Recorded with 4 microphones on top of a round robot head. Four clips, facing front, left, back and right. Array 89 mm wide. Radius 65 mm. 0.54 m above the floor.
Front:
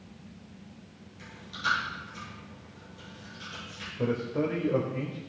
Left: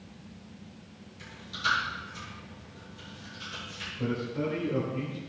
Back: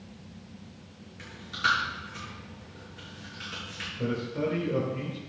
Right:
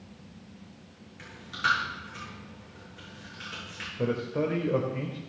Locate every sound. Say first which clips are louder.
1.2 s chewing: right 3 dB, back 4 dB; 130° right, 6.5 m
4.0 s a man speaking: right 3 dB, front 2 dB; 55° right, 1.8 m